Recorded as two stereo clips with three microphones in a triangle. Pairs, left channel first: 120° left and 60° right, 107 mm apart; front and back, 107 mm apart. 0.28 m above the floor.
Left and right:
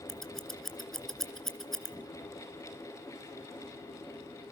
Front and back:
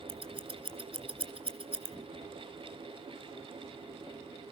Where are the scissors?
155° right, 2.5 m.